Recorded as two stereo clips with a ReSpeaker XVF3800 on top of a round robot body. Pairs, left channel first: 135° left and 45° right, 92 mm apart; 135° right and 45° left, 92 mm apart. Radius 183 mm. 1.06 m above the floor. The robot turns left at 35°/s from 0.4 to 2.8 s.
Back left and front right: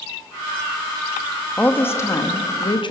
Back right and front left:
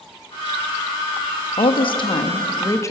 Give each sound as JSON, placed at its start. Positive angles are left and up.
{"t": 1.6, "sound": "a woman speaking", "azimuth_deg": -150, "distance_m": 2.0}